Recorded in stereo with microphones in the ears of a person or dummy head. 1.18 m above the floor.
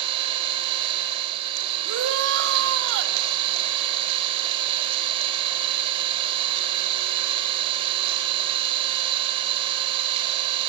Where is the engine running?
30° right (ahead or behind), 4 m.